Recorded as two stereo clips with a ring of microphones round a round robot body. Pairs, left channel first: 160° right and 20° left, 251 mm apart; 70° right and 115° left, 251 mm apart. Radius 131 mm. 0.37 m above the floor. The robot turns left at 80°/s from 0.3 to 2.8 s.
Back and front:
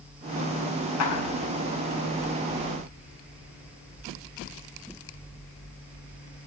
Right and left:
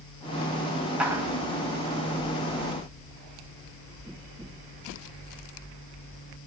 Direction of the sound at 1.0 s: 160° right.